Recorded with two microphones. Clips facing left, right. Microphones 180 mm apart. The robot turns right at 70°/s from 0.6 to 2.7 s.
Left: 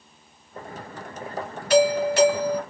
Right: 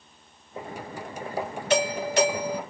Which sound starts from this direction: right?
A doorbell, at 1.7 s.